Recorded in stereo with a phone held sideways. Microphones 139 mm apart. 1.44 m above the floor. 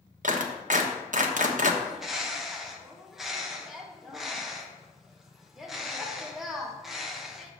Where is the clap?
65° right (ahead or behind), 1.1 m.